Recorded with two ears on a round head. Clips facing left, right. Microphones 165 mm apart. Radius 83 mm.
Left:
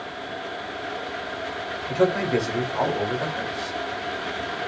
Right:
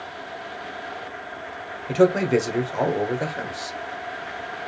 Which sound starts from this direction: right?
A man speaking, at 1.9 s.